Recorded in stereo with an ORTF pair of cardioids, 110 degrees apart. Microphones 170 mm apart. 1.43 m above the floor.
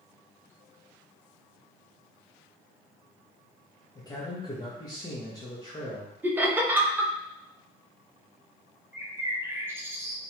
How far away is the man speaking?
About 0.7 m.